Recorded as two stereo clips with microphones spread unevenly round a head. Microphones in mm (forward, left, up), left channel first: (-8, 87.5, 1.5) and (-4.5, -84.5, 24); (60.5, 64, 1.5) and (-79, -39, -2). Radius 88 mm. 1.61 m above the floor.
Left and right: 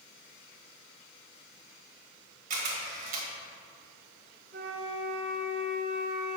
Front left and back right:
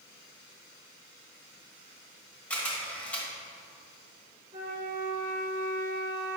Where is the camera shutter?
45° right, 1.9 m.